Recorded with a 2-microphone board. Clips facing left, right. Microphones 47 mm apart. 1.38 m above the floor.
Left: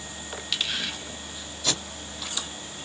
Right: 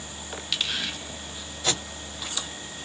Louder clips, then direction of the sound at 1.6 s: Right 1 dB; 35° right (ahead or behind).